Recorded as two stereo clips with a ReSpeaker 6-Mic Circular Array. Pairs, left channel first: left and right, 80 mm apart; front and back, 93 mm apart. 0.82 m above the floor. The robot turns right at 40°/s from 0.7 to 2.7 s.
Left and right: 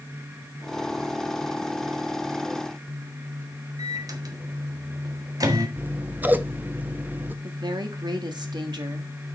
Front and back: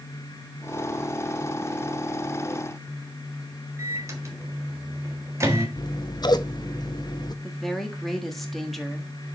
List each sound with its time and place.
3.8 s a microwave: 125° right, 1.5 m
5.8 s scissors: 25° right, 0.6 m
7.4 s a woman speaking: 85° right, 1.6 m